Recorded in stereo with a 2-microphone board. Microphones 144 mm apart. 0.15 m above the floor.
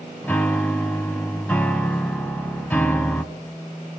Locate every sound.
0.2 s a piano: 15° left (ahead or behind), 1.2 m